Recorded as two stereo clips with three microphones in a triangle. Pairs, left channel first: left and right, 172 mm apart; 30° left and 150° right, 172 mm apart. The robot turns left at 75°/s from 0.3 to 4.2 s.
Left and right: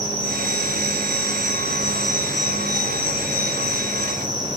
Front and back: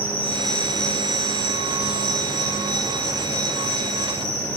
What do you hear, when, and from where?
0.0 s an insect: 135° left, 1.6 m; by 4.6 s 160° right, 1.6 m